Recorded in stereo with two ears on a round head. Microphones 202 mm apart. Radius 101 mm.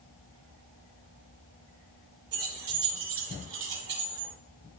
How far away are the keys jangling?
About 3.5 m.